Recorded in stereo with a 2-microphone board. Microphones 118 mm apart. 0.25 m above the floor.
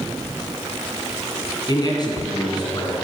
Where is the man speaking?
35° left (ahead or behind), 2.0 m.